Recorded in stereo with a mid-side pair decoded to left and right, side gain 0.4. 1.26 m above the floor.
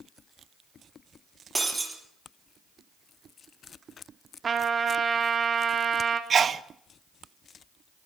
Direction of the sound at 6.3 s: 50° right.